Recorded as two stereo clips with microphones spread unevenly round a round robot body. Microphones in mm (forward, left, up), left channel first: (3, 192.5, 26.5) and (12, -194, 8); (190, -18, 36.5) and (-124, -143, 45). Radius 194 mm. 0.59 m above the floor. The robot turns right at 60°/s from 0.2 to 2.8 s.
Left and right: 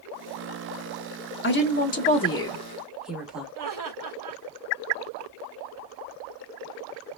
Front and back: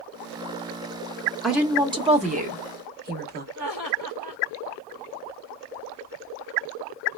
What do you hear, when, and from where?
1.4 s a woman speaking: 110° left, 0.7 m; by 3.5 s 170° right, 0.7 m
3.5 s laughter: 125° right, 1.8 m